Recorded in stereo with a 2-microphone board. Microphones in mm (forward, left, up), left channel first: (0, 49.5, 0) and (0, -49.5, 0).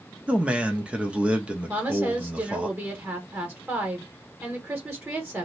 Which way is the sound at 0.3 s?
10° right (ahead or behind).